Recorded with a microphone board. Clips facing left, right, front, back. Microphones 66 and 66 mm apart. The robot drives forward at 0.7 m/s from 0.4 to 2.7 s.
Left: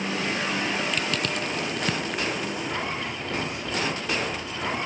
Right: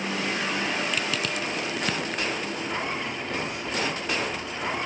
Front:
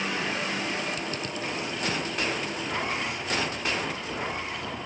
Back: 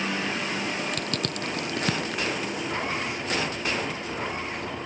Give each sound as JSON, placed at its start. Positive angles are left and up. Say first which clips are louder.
{"t": 0.9, "sound": "crushing", "louder": "left 1 dB, back 2 dB", "azimuth_deg": -175}